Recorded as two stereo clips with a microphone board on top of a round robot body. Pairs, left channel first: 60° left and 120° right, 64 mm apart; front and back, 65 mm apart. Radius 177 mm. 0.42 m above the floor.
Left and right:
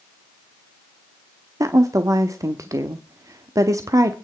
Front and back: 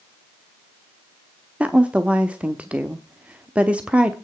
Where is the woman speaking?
110° right, 1.4 m.